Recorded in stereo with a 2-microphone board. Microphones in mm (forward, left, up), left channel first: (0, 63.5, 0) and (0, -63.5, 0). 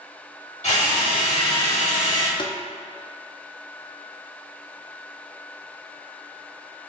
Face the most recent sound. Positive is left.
turn(degrees=40)  # may be behind; listen again after turning